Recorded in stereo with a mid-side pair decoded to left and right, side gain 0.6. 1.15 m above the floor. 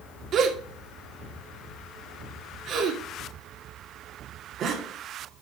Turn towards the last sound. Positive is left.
turn(degrees=-50)